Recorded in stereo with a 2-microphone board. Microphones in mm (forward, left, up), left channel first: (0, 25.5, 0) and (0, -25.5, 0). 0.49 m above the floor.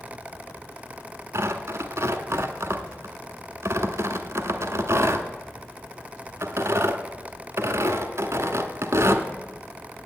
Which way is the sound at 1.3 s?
70° right (ahead or behind).